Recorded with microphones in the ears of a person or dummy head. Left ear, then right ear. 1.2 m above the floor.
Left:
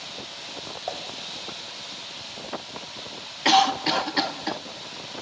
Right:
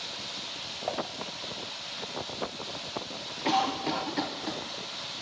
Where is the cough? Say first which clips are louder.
Left 9 dB; 50° left (ahead or behind), 0.5 m.